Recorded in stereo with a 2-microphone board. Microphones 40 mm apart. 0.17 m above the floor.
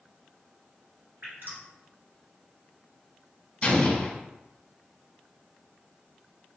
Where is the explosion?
25° left (ahead or behind), 0.9 m.